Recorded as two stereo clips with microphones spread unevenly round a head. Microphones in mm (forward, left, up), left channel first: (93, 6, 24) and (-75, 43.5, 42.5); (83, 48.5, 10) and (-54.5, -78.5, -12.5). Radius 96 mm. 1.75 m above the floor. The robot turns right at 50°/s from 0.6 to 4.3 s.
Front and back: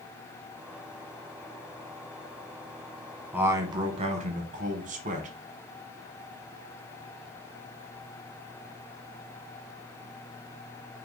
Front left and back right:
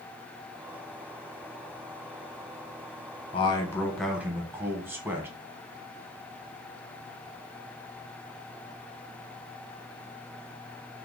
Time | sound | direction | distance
3.3 | a man speaking | 90° left | 0.9 m